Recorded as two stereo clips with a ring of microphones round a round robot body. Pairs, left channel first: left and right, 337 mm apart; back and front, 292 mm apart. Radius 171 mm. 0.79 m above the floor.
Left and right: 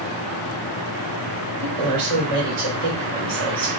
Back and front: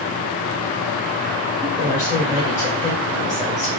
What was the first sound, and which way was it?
A woman speaking, 100° right.